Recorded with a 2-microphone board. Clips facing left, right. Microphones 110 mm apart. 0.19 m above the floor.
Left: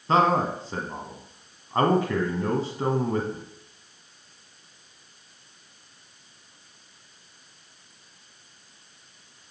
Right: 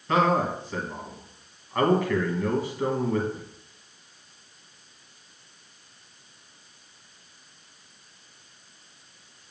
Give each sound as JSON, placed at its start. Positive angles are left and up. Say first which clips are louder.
{"t": 0.1, "sound": "a man speaking", "louder": "left 1 dB", "side_deg": 30, "distance_m": 1.2}